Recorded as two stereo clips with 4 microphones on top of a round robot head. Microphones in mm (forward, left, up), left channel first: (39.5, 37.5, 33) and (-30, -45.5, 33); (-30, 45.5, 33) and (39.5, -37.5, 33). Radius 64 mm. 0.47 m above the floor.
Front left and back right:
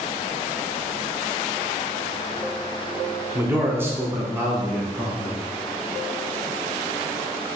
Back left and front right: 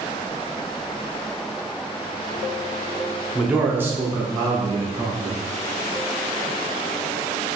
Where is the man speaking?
125° right, 0.9 m; by 5.4 s 65° right, 1.5 m.